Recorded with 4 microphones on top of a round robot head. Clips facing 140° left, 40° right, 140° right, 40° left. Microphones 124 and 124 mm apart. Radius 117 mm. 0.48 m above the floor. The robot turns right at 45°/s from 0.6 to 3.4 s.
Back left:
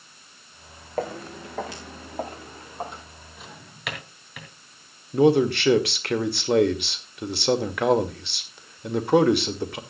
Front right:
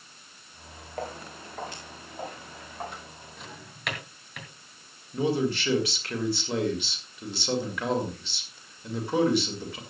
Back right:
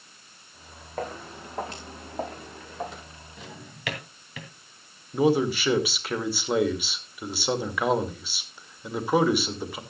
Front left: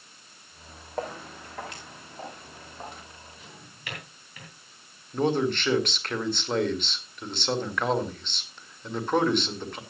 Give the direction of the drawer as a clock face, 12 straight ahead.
4 o'clock.